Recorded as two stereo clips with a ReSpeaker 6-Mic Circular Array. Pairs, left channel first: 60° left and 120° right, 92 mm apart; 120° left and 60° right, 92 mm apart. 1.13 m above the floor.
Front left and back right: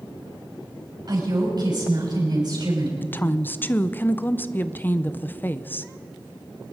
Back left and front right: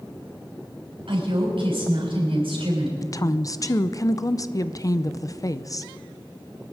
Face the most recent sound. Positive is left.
turn(degrees=115)